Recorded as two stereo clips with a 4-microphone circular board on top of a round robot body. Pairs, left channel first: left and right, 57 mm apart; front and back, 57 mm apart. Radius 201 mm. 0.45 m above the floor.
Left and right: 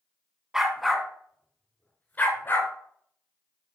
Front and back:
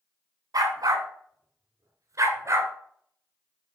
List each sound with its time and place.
0.5 s a dog barking: 170° right, 1.5 m; by 2.7 s 140° left, 2.5 m